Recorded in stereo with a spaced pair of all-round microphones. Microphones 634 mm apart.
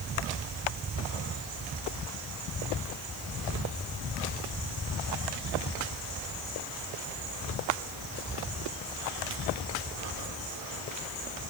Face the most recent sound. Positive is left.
No sound to turn to.